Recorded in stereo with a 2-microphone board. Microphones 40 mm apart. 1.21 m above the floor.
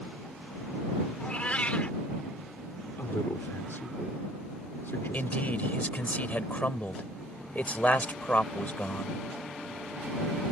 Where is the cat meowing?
35° left (ahead or behind).